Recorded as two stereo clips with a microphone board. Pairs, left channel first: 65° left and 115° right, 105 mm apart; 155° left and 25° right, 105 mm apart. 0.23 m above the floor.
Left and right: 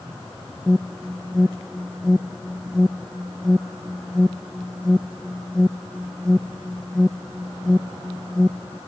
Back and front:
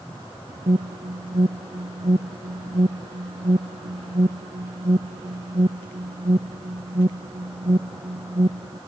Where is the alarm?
20° right.